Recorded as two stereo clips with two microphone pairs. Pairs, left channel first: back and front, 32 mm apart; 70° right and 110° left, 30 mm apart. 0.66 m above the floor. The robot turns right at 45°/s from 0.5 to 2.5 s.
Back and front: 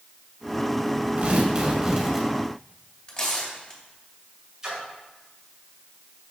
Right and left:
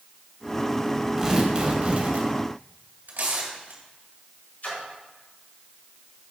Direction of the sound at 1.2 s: 40° left.